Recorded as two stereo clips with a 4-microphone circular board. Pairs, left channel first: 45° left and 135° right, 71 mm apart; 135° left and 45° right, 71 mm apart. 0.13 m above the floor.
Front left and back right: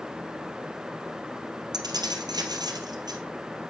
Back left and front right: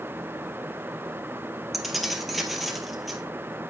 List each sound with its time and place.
1.7 s keys jangling: 135° right, 2.0 m